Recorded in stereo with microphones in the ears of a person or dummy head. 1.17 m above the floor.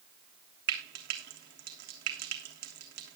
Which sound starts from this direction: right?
Frying, at 0.7 s.